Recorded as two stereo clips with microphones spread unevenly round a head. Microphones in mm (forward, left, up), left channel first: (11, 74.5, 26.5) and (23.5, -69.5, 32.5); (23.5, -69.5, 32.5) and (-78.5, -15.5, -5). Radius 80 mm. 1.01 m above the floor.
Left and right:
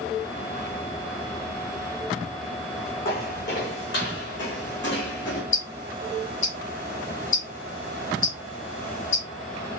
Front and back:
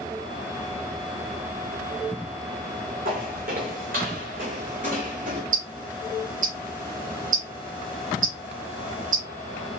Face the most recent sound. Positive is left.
turn(degrees=140)